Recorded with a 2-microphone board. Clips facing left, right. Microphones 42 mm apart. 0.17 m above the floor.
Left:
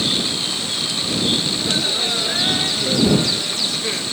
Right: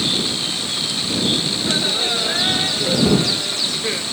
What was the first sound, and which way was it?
Laughter, 15° right (ahead or behind).